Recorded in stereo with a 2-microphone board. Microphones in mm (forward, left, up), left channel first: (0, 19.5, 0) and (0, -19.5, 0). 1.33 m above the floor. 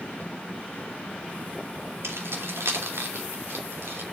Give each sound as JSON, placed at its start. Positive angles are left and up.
{"t": 2.0, "sound": "keys jangling", "side_deg": -80, "distance_m": 2.5}